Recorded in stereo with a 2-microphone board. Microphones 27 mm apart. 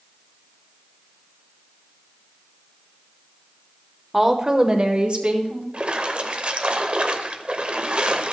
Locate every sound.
4.1 s a woman speaking: 10° right (ahead or behind), 0.9 m; by 5.6 s 50° right (ahead or behind), 1.8 m
5.7 s a splash: 40° right (ahead or behind), 0.8 m